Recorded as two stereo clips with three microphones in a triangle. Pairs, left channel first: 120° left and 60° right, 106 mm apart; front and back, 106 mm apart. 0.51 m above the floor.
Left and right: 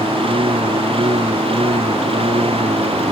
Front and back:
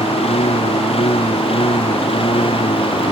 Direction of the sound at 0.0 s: 25° right.